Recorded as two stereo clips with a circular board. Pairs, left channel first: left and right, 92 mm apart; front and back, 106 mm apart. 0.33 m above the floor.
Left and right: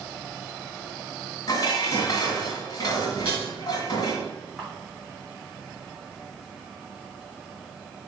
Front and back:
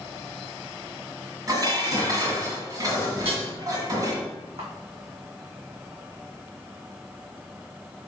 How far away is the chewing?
I don't hear chewing.